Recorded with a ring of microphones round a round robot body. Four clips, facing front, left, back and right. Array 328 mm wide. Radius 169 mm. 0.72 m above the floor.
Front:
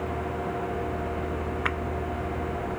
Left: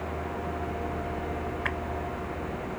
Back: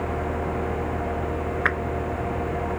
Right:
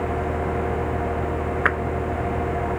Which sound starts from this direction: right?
A clap, at 1.6 s.